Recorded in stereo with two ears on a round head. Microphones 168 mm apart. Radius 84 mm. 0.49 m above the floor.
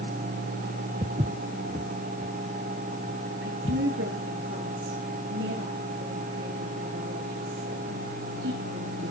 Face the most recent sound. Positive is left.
turn(degrees=-75)  # may be behind; listen again after turning